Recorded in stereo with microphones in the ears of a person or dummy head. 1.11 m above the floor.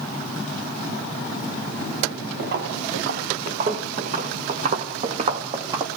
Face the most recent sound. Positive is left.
turn(degrees=-25)  # may be behind; listen again after turning